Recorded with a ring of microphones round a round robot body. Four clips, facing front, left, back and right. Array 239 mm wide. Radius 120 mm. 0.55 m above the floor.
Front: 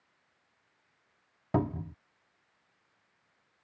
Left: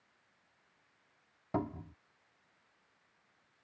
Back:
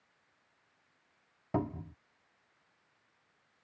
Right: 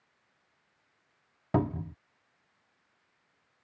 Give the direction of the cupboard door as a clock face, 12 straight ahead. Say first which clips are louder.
Right 7 dB, front 4 dB; 2 o'clock.